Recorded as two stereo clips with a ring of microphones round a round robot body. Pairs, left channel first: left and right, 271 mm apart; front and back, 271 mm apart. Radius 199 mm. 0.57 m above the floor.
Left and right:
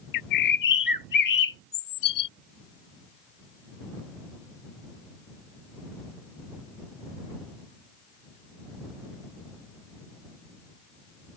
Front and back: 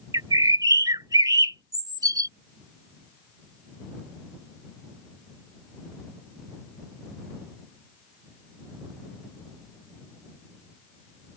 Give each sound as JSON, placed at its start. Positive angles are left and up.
{"t": 0.1, "sound": "a bird", "azimuth_deg": 100}